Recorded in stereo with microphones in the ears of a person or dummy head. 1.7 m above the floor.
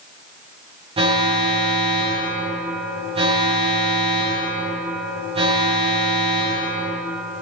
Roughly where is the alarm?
Right.